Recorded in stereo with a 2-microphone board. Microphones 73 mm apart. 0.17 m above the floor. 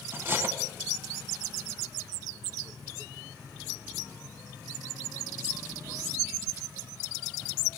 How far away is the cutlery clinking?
About 0.8 m.